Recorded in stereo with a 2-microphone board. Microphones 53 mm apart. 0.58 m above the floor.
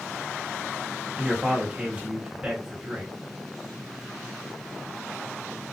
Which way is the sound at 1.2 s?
20° right (ahead or behind).